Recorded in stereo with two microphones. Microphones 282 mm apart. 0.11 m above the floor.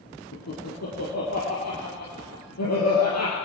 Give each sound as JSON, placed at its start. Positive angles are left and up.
{"t": 0.3, "sound": "laughter", "side_deg": 65, "distance_m": 3.5}